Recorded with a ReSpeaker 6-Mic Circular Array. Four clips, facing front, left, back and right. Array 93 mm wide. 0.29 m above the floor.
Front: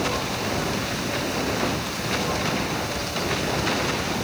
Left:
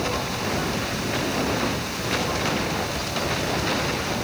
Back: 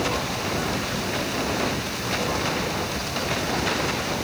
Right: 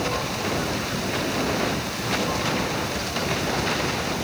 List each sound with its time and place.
Only background noise.